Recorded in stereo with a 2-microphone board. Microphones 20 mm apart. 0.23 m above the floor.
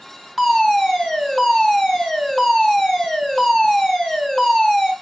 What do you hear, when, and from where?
0.4 s a fire alarm: 10° right (ahead or behind), 3 m